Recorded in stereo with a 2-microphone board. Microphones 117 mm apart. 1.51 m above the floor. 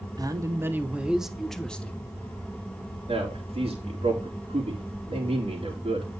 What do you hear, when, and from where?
0.2 s a man speaking: 35° right (ahead or behind), 1.0 m; by 2.1 s 15° left (ahead or behind), 1.3 m
3.1 s a man speaking: 65° right (ahead or behind), 3.5 m